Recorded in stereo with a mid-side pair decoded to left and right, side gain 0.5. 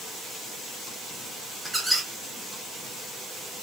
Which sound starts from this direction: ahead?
A squeak, at 1.6 s.